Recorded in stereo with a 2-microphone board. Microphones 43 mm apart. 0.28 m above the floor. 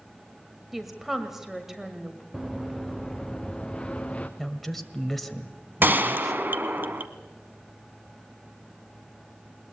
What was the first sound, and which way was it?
A woman speaking, 5° right (ahead or behind).